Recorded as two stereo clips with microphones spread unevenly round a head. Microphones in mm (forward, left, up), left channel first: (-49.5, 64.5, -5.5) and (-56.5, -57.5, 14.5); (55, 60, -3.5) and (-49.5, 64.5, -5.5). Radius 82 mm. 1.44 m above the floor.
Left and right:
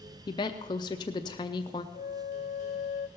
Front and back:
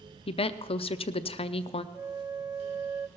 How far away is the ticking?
No ticking in this recording.